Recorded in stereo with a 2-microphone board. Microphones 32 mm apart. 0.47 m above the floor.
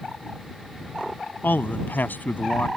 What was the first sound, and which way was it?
A man speaking, 75° left (ahead or behind).